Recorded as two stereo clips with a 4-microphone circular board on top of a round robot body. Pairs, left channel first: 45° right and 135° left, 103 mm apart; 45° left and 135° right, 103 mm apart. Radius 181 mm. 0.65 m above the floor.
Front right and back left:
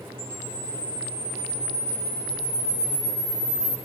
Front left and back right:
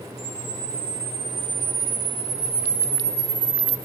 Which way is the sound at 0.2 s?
125° right.